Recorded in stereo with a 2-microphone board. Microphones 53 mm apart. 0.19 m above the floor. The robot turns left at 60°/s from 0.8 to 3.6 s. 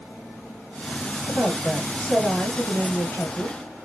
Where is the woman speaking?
135° right, 3 m; by 3.6 s 85° left, 3 m.